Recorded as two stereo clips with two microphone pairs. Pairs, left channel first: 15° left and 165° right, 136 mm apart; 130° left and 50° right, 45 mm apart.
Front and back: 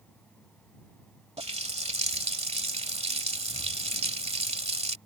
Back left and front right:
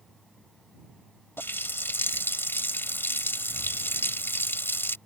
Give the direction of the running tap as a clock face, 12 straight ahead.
7 o'clock.